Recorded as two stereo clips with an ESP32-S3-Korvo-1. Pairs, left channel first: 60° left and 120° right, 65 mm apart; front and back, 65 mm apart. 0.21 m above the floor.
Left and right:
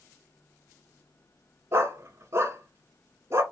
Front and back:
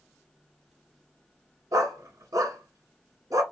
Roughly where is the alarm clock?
I don't hear an alarm clock.